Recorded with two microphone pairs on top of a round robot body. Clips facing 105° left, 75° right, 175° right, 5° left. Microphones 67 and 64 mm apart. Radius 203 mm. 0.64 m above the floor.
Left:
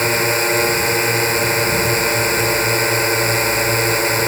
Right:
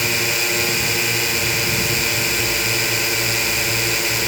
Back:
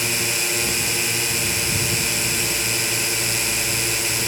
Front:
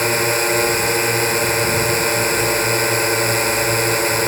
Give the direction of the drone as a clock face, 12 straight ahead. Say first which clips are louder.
Left 5 dB, front 8 dB; 10 o'clock.